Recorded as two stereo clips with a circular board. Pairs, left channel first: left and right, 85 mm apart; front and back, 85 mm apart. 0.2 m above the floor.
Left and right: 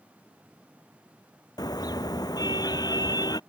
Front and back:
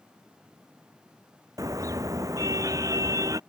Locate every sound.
1.6 s a car horn: 130° left